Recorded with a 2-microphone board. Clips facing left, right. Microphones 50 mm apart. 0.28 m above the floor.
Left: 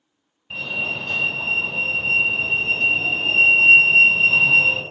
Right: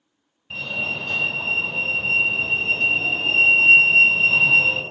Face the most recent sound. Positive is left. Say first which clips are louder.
# left 1 dB
turn(degrees=5)  # may be behind; listen again after turning